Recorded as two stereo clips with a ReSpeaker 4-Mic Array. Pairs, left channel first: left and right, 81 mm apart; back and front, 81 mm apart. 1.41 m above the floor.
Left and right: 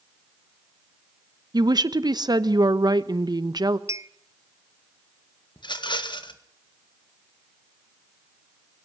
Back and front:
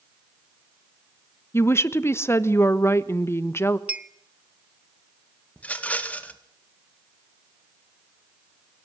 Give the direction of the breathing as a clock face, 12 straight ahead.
No breathing in this recording.